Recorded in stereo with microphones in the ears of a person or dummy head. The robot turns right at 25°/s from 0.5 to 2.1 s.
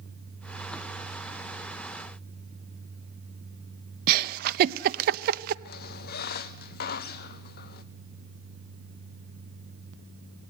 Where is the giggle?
55° right (ahead or behind), 0.6 m.